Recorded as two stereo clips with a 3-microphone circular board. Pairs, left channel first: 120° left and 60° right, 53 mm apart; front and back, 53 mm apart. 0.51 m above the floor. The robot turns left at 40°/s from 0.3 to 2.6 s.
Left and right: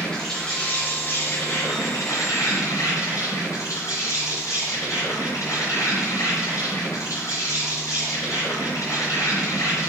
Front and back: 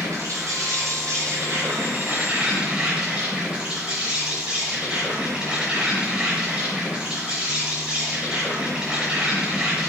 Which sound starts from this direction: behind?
An insect, at 0.0 s.